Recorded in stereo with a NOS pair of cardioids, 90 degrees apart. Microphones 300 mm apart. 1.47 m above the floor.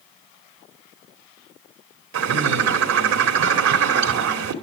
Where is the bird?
65° right, 2.5 m.